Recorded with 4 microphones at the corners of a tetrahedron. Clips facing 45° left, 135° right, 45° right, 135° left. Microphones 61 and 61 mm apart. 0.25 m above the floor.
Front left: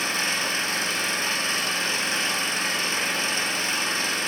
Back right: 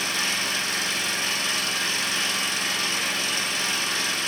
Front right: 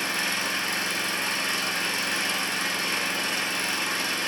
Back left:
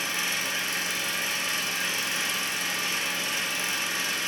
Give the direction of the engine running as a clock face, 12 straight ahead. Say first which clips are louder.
Front left 1 dB, front right 2 dB; 12 o'clock.